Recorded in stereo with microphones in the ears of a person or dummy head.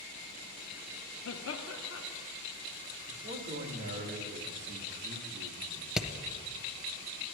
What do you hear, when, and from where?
1.2 s laughter: 70° left (ahead or behind), 0.8 m
3.1 s a man speaking: 50° right (ahead or behind), 2 m
6.0 s hammering: 5° right (ahead or behind), 0.6 m